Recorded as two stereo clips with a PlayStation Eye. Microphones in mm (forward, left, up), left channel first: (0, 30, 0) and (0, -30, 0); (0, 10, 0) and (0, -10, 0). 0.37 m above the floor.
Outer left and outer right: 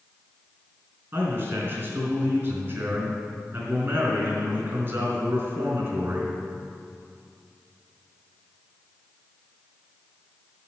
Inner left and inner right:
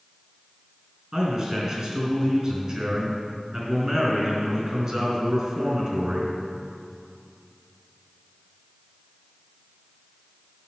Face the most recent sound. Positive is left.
turn(degrees=-45)  # may be behind; listen again after turning